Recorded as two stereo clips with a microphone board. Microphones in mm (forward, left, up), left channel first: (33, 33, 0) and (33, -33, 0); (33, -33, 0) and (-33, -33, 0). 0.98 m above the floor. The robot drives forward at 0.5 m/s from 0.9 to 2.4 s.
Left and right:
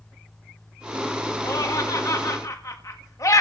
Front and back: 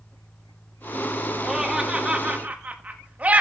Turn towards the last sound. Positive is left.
turn(degrees=115)